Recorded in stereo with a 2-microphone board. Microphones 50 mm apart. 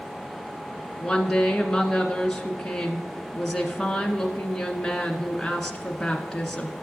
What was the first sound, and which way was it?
A woman speaking, 5° left (ahead or behind).